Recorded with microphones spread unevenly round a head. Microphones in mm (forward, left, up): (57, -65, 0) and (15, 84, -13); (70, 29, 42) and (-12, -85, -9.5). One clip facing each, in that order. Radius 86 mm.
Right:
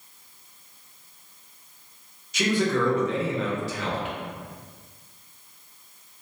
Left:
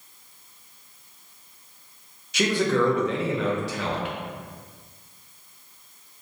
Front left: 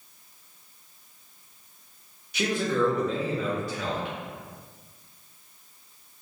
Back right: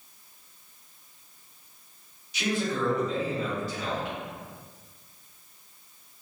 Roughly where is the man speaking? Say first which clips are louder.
Left 1 dB, front left 3 dB; left.